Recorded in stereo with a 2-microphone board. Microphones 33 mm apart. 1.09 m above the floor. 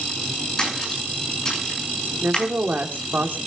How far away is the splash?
About 7.5 m.